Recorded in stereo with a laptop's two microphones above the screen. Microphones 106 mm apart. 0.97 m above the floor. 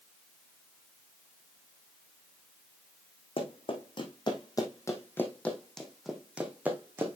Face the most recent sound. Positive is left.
turn(degrees=-20)  # may be behind; listen again after turning